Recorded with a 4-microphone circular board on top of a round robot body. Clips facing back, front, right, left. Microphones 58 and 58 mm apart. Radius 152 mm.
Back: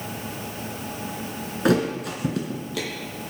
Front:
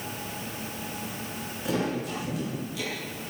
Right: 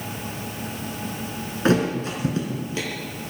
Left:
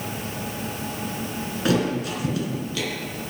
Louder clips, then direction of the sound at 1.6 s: Back 7 dB, right 2 dB; 150° right.